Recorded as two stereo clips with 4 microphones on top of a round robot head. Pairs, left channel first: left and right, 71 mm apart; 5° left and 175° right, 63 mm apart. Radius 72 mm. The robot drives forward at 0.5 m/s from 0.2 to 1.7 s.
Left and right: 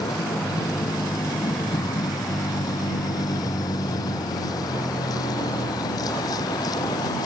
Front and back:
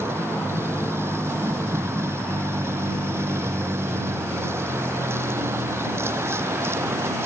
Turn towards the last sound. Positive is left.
turn(degrees=135)